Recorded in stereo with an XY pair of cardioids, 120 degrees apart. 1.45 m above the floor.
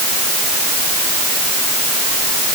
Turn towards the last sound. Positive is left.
No sound to turn to.